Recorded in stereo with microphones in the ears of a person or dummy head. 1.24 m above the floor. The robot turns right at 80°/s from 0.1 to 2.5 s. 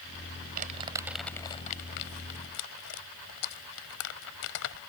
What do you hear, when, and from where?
0.6 s crumpling: 50° right (ahead or behind); by 4.8 s 75° left (ahead or behind)